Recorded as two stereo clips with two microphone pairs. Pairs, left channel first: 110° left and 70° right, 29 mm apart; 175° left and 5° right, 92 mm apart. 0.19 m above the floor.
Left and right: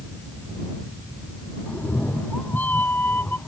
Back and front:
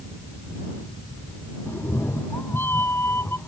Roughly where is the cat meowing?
Left.